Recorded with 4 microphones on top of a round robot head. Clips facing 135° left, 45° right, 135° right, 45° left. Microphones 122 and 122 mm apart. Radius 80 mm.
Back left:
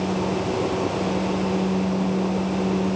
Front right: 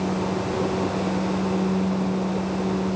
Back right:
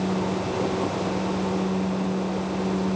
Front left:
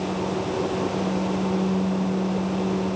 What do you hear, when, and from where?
Only background noise.